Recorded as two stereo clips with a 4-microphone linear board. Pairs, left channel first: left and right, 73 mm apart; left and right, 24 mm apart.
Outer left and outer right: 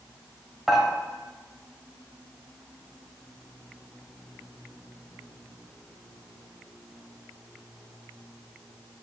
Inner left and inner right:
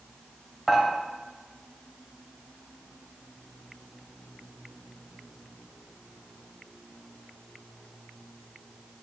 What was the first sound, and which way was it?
Dishes clattering, 5° right (ahead or behind).